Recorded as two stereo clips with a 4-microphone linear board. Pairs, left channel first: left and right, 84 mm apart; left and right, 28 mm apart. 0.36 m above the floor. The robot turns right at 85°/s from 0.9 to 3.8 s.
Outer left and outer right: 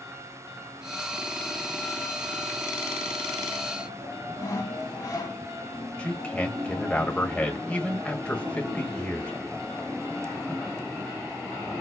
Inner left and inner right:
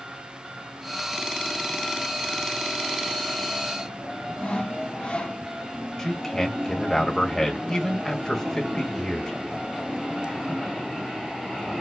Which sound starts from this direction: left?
Sawing, at 4.4 s.